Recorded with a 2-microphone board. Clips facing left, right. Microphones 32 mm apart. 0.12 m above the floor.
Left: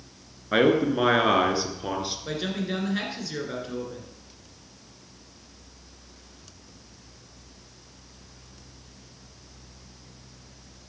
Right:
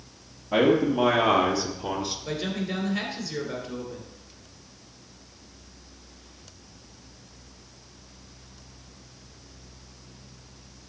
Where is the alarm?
I don't hear an alarm.